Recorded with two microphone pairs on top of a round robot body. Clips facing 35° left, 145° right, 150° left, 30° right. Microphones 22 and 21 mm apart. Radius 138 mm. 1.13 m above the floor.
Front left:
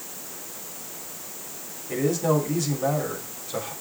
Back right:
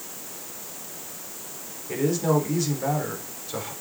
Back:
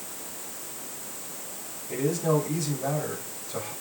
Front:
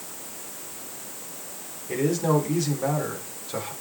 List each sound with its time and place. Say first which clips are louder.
1.9 s a man speaking: even, front 2 dB; 70° right, 4.5 m